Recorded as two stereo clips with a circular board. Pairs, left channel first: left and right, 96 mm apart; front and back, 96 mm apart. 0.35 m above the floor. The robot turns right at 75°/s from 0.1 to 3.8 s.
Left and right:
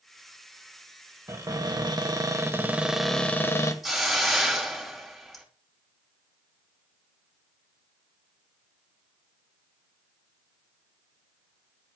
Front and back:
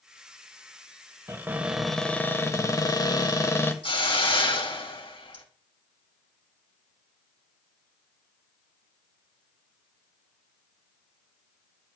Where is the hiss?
Straight ahead, 2.5 m.